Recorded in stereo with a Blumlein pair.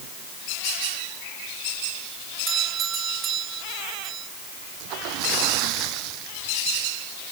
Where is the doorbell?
25° right.